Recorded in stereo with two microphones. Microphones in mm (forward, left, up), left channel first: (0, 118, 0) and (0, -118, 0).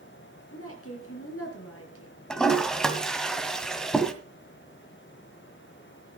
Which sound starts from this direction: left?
A woman speaking, at 0.5 s.